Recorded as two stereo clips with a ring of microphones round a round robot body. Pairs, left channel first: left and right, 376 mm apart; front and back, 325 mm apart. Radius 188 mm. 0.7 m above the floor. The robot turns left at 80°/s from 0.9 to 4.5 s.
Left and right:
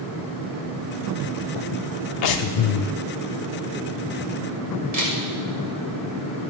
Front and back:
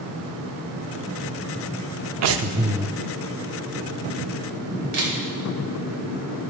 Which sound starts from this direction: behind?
A camera shutter, at 4.9 s.